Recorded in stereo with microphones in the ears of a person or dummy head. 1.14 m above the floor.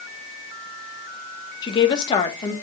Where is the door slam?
I don't hear a door slam.